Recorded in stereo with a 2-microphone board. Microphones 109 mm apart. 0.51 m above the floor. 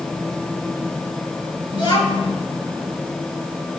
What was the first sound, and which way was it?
A child speaking, 50° left (ahead or behind).